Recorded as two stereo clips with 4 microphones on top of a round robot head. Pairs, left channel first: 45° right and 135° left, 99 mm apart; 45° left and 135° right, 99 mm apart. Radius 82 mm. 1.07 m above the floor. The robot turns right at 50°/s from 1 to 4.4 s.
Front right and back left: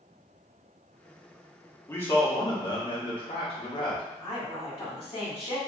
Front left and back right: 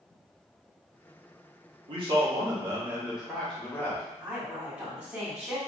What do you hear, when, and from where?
1.9 s a man speaking: 115° right, 1.1 m; by 4.0 s 10° right, 1.1 m
4.2 s a woman speaking: 70° right, 1.6 m; by 5.6 s 60° right, 1.6 m